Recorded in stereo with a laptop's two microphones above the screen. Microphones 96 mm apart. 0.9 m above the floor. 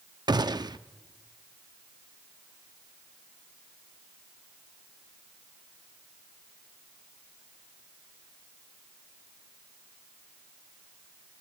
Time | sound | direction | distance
0.3 | a gunshot | 50° right (ahead or behind) | 0.6 m